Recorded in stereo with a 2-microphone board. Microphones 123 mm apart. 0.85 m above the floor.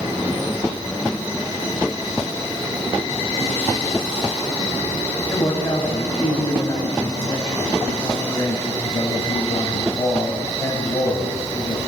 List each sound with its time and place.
5.3 s a man speaking: 25° left (ahead or behind), 5.5 m